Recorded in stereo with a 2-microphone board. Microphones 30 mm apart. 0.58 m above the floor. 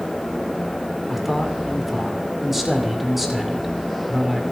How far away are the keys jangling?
I don't hear keys jangling.